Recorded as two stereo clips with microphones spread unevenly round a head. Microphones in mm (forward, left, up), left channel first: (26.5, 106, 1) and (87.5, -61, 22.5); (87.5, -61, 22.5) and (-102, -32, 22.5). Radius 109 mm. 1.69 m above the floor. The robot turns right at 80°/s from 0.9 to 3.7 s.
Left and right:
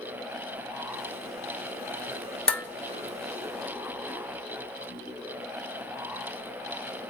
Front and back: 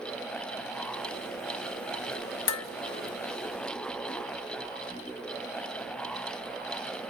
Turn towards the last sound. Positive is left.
turn(degrees=120)